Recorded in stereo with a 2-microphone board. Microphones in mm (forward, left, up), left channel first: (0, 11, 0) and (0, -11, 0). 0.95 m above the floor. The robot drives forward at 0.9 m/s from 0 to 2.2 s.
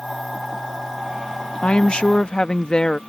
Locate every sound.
1.6 s a woman speaking: 60° left (ahead or behind); by 3.0 s 45° left (ahead or behind)